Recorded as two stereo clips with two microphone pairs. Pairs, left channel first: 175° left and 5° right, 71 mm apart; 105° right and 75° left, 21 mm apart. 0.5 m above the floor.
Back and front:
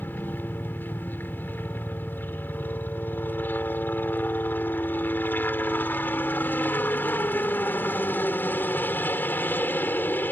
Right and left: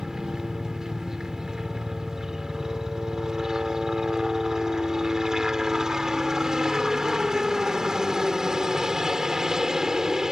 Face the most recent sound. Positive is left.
turn(degrees=125)